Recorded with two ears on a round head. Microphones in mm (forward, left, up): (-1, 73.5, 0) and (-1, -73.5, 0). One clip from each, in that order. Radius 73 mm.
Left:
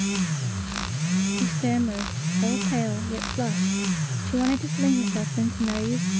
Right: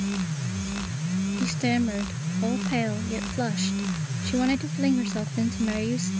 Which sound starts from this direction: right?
A woman speaking, at 1.4 s.